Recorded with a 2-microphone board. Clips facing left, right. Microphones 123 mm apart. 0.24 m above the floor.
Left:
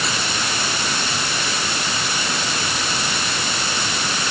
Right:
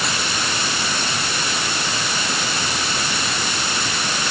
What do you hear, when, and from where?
Only background noise.